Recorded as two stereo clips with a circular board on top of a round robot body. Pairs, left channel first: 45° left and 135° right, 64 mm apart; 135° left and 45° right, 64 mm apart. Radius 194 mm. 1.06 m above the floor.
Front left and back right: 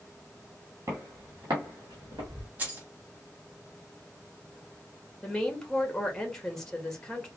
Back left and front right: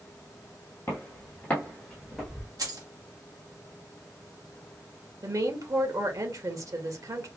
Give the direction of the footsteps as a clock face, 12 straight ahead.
6 o'clock.